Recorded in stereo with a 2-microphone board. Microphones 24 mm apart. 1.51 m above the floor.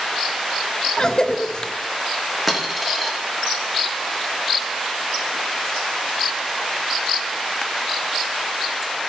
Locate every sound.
1.0 s a cough: 30° left (ahead or behind), 0.5 m
2.5 s a dropped coin: 5° right (ahead or behind), 1.0 m